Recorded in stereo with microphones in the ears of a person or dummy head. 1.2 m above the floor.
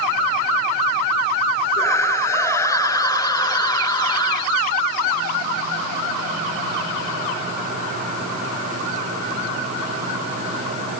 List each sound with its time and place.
1.8 s a scream: 15° left (ahead or behind); by 4.6 s 20° left (ahead or behind)